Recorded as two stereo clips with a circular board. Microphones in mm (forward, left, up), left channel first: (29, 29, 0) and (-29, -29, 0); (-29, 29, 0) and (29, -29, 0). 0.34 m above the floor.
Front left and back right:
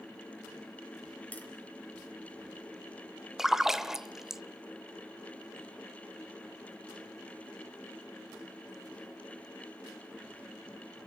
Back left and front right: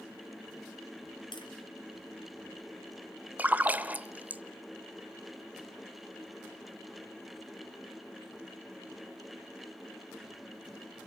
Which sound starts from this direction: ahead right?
A splash, at 3.4 s.